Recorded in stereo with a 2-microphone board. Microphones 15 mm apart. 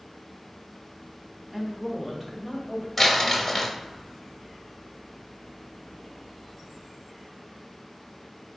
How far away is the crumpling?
About 1.0 m.